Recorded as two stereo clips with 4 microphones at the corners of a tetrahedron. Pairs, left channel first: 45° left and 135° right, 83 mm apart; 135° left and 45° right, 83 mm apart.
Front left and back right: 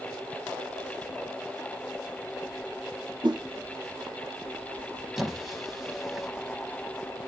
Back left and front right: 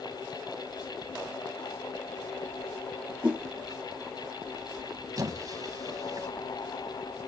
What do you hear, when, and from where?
3.2 s a whoosh: 120° right, 1.4 m
5.2 s a squeak: 45° right, 1.3 m